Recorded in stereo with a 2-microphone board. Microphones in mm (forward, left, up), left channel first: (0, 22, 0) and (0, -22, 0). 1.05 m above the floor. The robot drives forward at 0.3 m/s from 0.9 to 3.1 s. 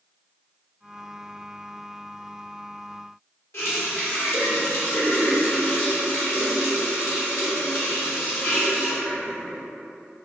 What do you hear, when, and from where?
3.5 s a running tap: 75° left (ahead or behind), 1.2 m